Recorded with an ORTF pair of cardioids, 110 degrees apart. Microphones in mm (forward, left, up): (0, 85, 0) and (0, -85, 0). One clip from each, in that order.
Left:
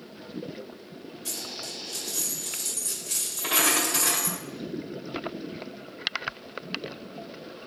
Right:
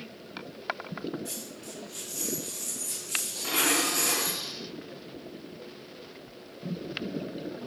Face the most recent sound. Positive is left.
turn(degrees=65)